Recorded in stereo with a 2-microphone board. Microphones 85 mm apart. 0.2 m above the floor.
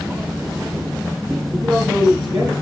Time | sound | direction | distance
1.5 | a man speaking | 45° right (ahead or behind) | 4.5 m